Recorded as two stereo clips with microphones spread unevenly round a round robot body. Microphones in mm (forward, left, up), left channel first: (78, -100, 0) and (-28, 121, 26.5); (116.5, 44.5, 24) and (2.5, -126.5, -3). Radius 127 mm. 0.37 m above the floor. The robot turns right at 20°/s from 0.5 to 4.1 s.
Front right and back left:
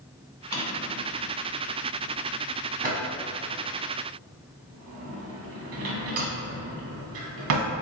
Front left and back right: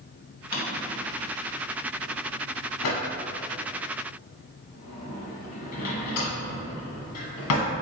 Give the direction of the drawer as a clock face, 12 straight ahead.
12 o'clock.